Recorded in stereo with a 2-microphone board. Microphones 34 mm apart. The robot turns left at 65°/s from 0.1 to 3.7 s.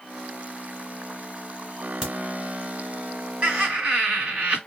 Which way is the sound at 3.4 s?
35° right (ahead or behind).